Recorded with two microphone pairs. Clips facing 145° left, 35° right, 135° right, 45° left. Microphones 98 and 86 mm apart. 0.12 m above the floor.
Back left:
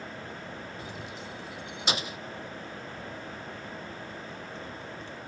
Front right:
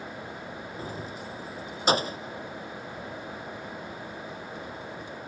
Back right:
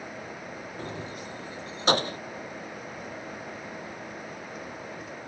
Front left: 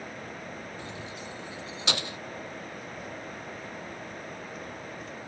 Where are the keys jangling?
85° right.